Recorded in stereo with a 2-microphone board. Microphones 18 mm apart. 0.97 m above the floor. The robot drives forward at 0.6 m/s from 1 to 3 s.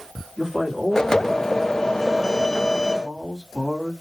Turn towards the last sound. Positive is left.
turn(degrees=-40)  # may be behind; listen again after turning